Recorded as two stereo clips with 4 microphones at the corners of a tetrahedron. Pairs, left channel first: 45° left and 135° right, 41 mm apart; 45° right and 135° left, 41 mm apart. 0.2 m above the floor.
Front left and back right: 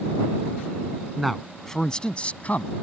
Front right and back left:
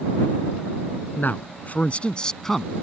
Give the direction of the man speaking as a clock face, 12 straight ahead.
2 o'clock.